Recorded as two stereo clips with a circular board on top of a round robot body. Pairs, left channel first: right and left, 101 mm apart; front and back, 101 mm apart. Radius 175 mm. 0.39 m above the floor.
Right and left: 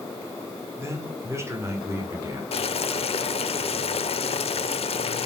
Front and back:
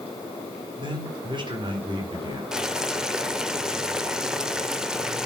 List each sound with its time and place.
0.8 s a man speaking: 150° left, 2 m
2.5 s boiling: 95° right, 1.0 m